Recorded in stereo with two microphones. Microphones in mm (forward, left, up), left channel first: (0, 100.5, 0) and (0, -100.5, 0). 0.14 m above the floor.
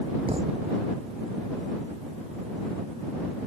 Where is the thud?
30° right (ahead or behind).